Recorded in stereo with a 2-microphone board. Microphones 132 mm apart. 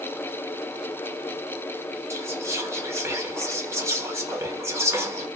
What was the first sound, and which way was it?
Whispering, 20° right (ahead or behind).